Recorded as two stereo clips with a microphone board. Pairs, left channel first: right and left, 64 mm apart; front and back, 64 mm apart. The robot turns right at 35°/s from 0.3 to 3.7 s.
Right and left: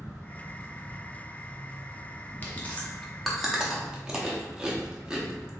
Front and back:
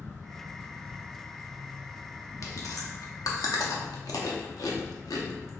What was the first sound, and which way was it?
An insect, 165° right.